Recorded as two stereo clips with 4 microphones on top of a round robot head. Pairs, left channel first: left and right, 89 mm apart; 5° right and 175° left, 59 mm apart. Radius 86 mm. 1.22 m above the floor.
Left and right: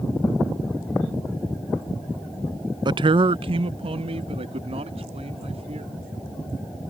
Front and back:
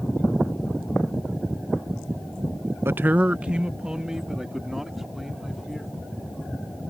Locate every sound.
2.9 s a man speaking: 125° right; by 6.0 s 90° right